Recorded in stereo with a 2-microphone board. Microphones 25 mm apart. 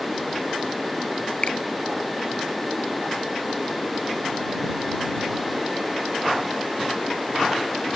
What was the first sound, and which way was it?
A finger snap, 55° left (ahead or behind).